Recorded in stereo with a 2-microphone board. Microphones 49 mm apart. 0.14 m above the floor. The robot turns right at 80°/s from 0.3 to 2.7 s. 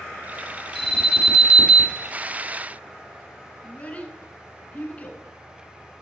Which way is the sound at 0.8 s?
10° left (ahead or behind).